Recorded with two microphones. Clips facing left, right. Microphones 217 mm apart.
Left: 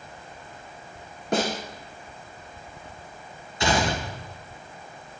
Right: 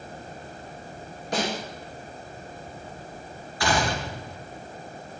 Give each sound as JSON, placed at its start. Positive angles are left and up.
{"t": 1.3, "sound": "a snare drum", "side_deg": 55, "distance_m": 4.0}
{"t": 3.6, "sound": "a gunshot", "side_deg": 20, "distance_m": 1.6}